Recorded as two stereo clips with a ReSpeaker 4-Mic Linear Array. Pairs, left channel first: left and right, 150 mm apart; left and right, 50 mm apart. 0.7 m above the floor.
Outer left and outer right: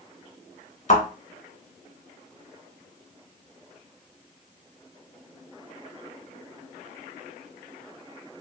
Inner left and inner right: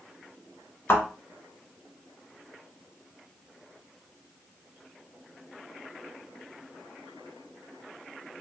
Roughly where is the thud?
Left.